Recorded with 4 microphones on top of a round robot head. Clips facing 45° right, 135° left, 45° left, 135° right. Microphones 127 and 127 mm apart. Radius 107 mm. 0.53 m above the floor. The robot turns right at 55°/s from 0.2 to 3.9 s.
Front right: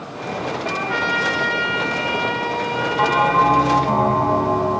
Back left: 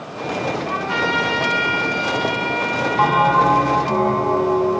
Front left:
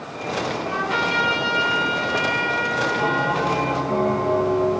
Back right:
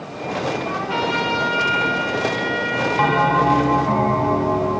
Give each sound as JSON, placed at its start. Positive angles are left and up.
{"t": 0.7, "sound": "a trumpet", "azimuth_deg": 130, "distance_m": 8.0}
{"t": 3.0, "sound": "a bell", "azimuth_deg": -155, "distance_m": 2.5}